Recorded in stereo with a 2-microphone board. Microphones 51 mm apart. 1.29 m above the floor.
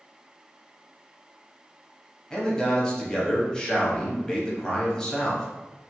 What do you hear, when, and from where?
2.3 s a man speaking: 15° left (ahead or behind), 0.8 m